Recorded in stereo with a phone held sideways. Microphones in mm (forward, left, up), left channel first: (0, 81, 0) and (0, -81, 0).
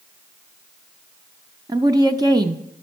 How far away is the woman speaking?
About 0.6 m.